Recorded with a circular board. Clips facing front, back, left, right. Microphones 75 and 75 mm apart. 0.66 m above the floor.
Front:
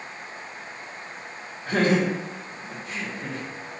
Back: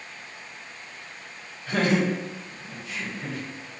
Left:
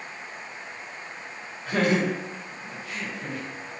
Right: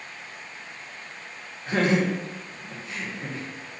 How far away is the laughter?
About 1.7 m.